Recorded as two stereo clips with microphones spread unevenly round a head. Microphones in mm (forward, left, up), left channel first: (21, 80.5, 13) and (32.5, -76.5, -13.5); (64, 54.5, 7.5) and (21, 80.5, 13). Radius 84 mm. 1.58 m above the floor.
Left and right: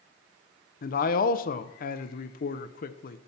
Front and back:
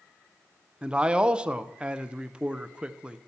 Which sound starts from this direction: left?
A man speaking, at 0.8 s.